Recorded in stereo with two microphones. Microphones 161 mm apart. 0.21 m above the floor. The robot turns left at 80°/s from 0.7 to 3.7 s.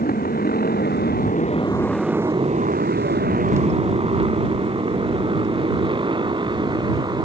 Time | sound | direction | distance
0.0 | a motorcycle | 65° left (ahead or behind) | ?